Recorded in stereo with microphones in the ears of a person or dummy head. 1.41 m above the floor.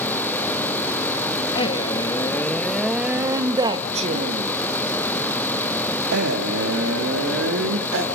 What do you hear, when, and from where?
1.6 s a man speaking: 30° left (ahead or behind), 1.6 m; by 8.1 s 75° right (ahead or behind), 3.5 m